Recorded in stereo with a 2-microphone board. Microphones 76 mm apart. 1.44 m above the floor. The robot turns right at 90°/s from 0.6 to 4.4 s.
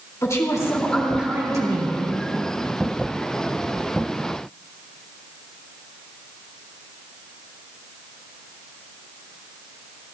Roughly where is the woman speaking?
Behind left.